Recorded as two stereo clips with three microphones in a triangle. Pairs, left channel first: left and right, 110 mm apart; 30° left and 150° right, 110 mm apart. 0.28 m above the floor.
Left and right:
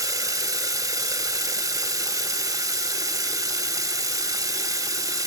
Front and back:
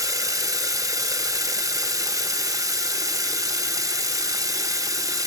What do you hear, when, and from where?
0.0 s running water: 120° right, 1.0 m